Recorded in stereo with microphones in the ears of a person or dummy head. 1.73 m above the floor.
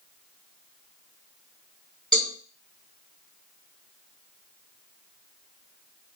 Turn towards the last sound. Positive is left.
turn(degrees=0)  # may be behind; listen again after turning